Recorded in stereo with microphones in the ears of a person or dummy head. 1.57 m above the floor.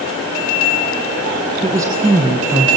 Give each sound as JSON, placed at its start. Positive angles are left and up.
{"t": 1.6, "sound": "a woman speaking", "side_deg": -20, "distance_m": 1.5}